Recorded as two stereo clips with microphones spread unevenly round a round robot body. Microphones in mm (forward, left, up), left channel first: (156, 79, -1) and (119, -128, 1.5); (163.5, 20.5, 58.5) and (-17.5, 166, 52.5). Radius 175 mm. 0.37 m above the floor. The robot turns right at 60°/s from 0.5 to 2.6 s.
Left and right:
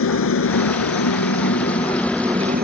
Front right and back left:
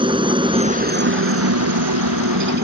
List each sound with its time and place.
0.0 s a helicopter: 75° left; by 2.6 s 165° right